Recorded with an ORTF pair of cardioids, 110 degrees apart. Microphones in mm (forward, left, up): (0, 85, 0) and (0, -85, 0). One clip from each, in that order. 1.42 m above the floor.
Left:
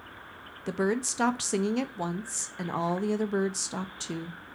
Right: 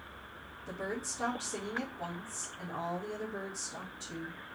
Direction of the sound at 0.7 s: 70° left.